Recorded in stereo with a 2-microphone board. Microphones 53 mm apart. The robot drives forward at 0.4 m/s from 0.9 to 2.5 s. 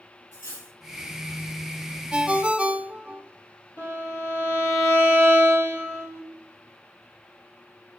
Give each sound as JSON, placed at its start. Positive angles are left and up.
{"t": 0.3, "sound": "cutlery clinking", "side_deg": 70, "distance_m": 2.5}
{"t": 2.1, "sound": "a ringtone", "side_deg": -20, "distance_m": 0.5}
{"t": 3.8, "sound": "a violin", "side_deg": 65, "distance_m": 2.0}